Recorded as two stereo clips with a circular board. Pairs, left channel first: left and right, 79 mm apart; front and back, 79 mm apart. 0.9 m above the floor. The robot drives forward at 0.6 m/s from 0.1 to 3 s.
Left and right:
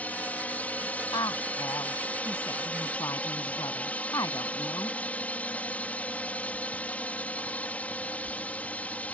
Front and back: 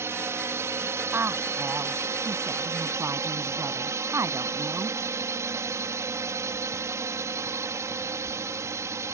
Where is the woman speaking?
120° left; by 5.0 s 130° left.